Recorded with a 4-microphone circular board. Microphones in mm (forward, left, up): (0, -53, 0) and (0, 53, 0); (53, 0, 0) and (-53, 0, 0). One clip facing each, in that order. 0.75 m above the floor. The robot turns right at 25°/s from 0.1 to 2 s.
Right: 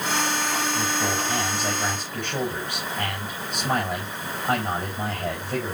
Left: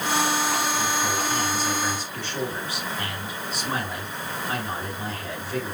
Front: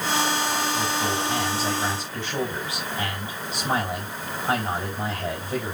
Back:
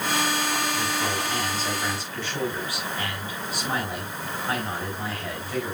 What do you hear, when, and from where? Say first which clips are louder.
0.8 s a man speaking: even, front 2 dB; 90° right, 4.5 m; by 5.8 s 55° right, 4.5 m